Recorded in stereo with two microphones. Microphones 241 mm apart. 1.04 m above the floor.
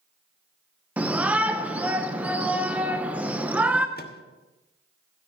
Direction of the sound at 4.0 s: 45° left (ahead or behind).